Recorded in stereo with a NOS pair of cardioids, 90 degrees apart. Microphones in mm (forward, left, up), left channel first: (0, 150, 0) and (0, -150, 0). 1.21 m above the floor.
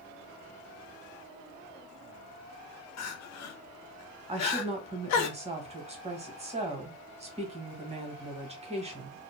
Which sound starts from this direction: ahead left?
Crying, at 3.0 s.